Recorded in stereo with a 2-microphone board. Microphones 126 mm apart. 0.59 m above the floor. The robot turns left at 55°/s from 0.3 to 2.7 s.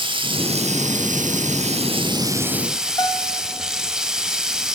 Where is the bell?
30° left (ahead or behind), 1.2 m.